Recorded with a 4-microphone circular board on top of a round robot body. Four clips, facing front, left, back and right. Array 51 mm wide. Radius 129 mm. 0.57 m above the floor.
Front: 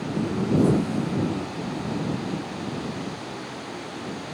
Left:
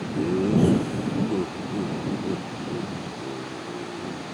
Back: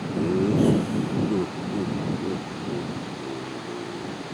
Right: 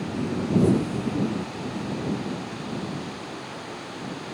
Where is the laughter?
140° left.